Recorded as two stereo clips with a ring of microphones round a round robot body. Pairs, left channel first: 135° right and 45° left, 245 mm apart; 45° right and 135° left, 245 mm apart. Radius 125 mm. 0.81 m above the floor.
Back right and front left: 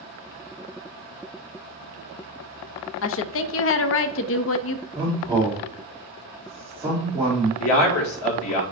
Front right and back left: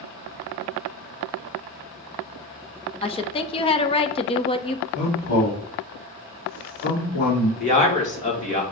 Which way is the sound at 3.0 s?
110° right.